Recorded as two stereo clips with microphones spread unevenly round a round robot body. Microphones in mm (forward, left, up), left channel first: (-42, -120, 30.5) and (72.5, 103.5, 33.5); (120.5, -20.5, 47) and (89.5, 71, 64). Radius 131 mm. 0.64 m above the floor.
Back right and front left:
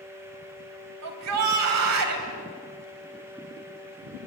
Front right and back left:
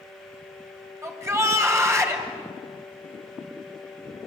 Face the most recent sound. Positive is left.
turn(degrees=45)